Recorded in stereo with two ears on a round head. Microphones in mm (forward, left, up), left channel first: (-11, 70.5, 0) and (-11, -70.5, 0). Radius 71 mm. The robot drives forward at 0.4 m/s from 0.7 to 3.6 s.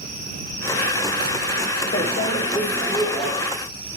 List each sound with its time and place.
1.9 s a microwave: 40° left (ahead or behind), 0.8 m; by 3.3 s 25° left (ahead or behind), 1.2 m